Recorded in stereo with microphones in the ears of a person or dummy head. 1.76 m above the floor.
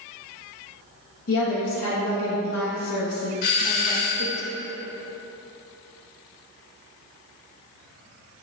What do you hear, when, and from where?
1.3 s a woman speaking: 90° left, 2 m
3.4 s a doorbell: 50° left (ahead or behind), 1.2 m